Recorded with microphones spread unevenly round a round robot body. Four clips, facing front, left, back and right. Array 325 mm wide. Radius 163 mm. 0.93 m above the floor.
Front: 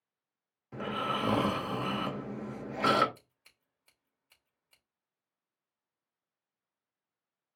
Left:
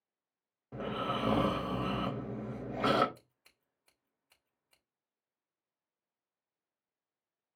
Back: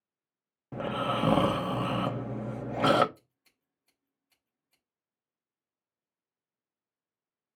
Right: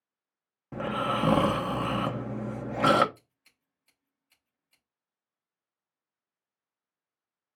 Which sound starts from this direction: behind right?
Snoring, at 0.7 s.